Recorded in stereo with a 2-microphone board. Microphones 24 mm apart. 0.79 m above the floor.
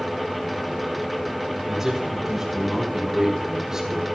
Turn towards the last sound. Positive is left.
turn(degrees=-20)  # may be behind; listen again after turning